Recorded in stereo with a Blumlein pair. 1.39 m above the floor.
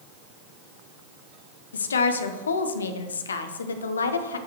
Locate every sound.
1.7 s a woman speaking: 70° left, 0.7 m